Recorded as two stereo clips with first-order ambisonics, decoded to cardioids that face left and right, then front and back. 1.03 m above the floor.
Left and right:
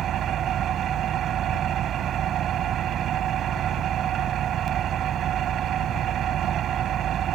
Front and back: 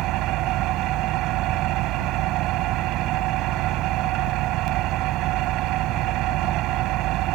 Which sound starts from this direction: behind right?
An engine running, at 0.0 s.